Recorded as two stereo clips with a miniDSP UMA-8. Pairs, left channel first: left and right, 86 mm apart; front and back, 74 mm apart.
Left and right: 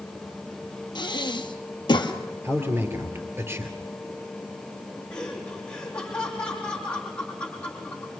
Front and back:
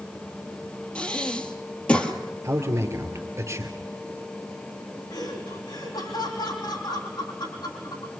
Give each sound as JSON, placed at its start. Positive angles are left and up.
{"t": 0.9, "sound": "breathing", "azimuth_deg": 70, "distance_m": 1.7}
{"t": 2.4, "sound": "a man speaking", "azimuth_deg": -145, "distance_m": 3.0}
{"t": 5.1, "sound": "laughter", "azimuth_deg": 10, "distance_m": 5.5}